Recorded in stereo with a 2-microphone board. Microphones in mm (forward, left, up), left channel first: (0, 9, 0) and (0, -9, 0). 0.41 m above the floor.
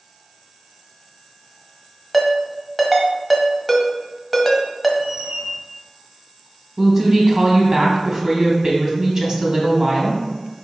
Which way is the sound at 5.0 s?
50° right (ahead or behind).